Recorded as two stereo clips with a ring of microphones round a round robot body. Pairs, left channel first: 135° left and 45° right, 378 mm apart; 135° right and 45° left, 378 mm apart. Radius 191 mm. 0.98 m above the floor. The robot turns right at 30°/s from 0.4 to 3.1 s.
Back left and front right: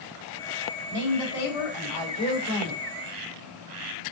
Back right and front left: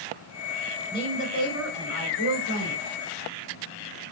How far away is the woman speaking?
About 3.5 m.